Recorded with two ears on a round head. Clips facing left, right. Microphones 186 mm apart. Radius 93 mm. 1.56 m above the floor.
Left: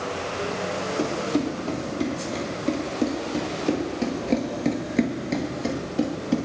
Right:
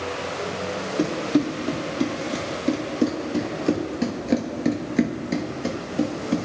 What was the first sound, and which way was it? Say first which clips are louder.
Running footsteps: right 4 dB; 15° right (ahead or behind).